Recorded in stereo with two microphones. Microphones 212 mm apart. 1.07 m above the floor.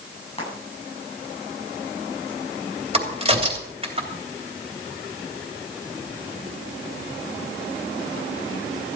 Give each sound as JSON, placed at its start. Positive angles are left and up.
{"t": 0.4, "sound": "frying", "side_deg": 30, "distance_m": 9.0}
{"t": 2.9, "sound": "a crack", "side_deg": -25, "distance_m": 3.0}